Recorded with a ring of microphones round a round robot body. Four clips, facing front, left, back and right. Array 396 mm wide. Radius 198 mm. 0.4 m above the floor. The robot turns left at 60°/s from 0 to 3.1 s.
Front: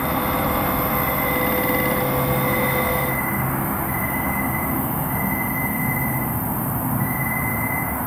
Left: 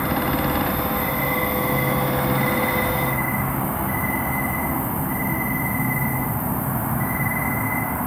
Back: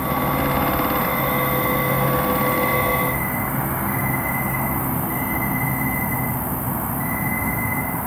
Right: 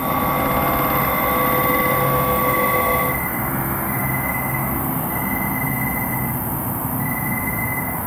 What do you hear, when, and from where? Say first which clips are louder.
0.0 s an insect: right 3 dB, even; 35° left, 1.4 m; by 8.1 s 150° right, 1.4 m